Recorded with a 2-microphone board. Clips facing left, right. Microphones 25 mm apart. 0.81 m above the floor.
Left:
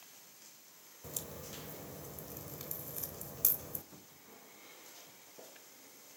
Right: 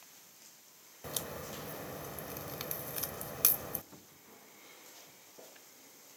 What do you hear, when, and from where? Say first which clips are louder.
1.0 s a crack: right 5 dB; 60° right (ahead or behind), 0.9 m
3.9 s a cupboard door: even; 10° right (ahead or behind), 1.4 m